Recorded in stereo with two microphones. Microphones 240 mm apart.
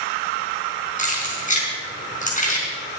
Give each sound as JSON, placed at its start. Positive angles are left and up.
{"t": 1.0, "sound": "keys jangling", "side_deg": 30, "distance_m": 4.5}